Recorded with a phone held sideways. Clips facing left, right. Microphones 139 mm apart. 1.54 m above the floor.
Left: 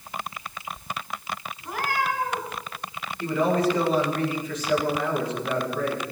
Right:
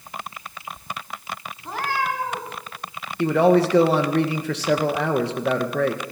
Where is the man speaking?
85° right, 1.9 m.